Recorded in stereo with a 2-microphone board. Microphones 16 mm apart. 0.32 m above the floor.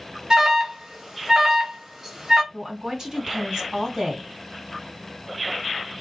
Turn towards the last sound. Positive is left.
turn(degrees=-50)  # may be behind; listen again after turning